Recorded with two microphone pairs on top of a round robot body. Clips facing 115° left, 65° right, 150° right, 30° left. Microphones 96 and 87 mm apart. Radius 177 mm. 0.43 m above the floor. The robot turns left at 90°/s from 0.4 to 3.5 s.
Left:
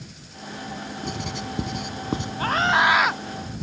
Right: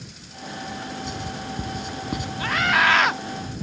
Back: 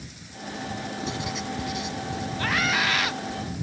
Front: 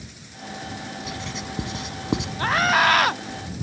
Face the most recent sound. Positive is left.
turn(degrees=-20)